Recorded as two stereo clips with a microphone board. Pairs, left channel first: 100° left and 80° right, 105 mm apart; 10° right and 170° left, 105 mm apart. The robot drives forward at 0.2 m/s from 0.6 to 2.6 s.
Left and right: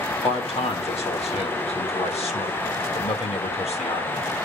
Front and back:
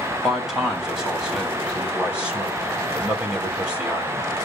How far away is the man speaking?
About 3 m.